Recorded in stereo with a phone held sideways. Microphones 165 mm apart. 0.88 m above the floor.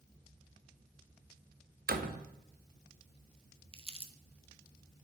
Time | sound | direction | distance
1.9 | a door slam | 65° right (ahead or behind) | 0.8 m
3.7 | crumpling | 35° right (ahead or behind) | 0.7 m